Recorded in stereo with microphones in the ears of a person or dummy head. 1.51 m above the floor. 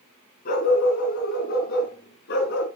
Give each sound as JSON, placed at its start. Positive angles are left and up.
{"t": 0.5, "sound": "a dog barking", "side_deg": 50, "distance_m": 5.0}